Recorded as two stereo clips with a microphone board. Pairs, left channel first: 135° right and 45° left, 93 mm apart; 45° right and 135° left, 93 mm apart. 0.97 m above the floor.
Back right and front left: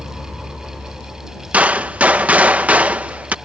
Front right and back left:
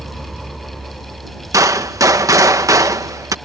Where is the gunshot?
110° left.